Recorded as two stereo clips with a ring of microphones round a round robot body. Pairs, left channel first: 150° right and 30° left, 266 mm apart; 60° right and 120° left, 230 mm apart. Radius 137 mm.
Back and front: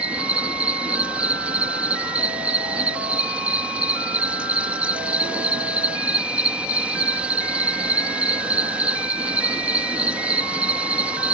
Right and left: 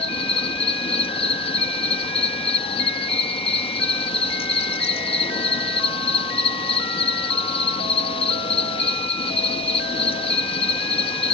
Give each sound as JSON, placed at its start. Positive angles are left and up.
{"t": 0.0, "sound": "an insect", "azimuth_deg": -50}